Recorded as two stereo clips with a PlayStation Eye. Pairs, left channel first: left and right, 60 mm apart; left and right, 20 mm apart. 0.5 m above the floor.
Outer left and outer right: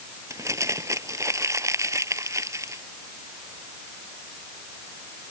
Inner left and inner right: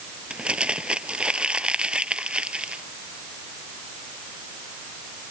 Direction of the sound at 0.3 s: 55° right (ahead or behind).